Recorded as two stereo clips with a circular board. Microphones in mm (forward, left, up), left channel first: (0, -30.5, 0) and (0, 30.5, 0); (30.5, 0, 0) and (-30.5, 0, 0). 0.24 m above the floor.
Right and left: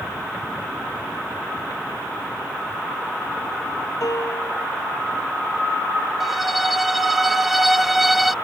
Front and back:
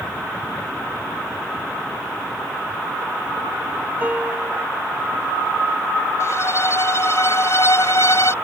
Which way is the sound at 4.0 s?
115° right.